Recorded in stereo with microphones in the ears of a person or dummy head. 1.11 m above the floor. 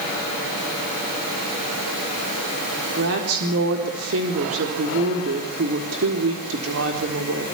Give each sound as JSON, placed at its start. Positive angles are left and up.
{"t": 3.0, "sound": "a woman speaking", "side_deg": -75, "distance_m": 4.0}